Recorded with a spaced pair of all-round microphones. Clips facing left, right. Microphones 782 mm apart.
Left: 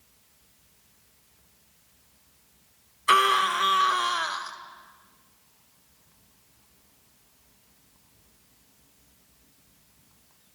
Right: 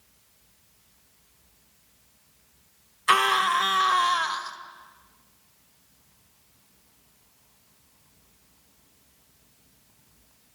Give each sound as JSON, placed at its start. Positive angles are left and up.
{"t": 3.1, "sound": "a scream", "side_deg": -30, "distance_m": 1.7}